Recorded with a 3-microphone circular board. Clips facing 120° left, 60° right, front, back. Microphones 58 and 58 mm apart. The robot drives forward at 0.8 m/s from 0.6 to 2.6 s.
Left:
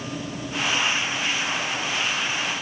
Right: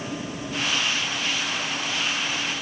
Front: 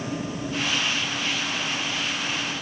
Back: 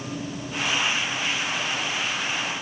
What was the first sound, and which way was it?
Only background noise.